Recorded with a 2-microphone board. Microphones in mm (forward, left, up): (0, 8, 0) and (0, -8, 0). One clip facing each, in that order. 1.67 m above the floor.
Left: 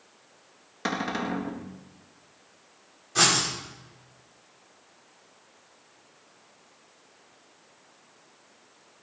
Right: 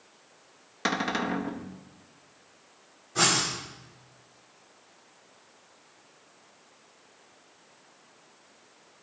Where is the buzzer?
I don't hear a buzzer.